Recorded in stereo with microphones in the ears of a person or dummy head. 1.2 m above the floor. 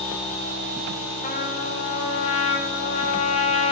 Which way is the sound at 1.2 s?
35° left (ahead or behind).